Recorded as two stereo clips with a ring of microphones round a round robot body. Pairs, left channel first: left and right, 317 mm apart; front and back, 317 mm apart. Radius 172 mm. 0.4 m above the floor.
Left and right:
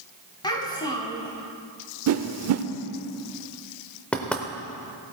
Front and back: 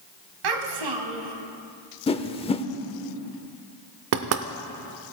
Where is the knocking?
175° left, 0.6 m.